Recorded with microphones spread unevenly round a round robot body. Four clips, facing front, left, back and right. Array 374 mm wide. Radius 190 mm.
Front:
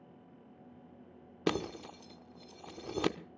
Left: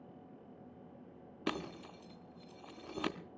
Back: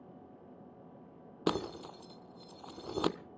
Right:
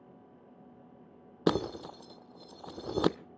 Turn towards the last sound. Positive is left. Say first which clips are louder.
# right 11 dB, even
turn(degrees=-80)